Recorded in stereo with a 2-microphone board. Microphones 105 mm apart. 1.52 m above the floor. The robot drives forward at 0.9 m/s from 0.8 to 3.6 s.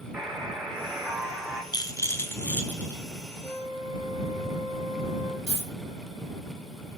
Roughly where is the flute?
Left.